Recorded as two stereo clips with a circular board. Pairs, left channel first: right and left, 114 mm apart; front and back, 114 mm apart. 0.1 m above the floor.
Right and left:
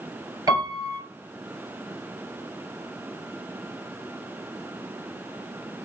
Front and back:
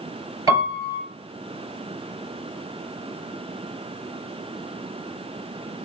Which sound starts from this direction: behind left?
A piano, at 0.5 s.